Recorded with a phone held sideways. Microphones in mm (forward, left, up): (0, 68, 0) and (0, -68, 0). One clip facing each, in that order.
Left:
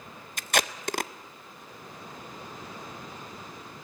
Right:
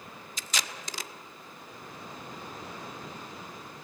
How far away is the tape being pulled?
About 0.6 m.